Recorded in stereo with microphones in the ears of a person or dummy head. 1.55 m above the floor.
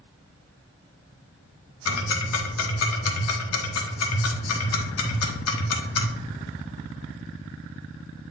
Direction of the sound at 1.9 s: 75° left (ahead or behind).